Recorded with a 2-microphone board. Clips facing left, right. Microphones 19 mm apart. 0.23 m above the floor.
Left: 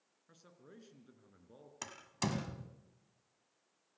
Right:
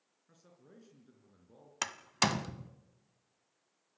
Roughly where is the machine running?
No machine running in this recording.